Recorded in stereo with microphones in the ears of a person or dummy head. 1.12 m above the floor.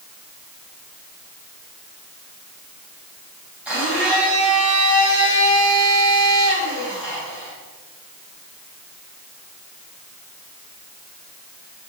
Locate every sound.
3.6 s a blender: 5° right (ahead or behind), 5.5 m